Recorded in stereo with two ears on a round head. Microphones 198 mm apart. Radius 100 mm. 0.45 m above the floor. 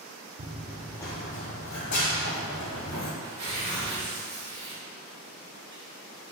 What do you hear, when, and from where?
0.4 s running footsteps: 35° right (ahead or behind), 0.6 m; by 3.1 s 65° left (ahead or behind), 1.9 m
3.2 s tearing paper: 45° right (ahead or behind), 1.6 m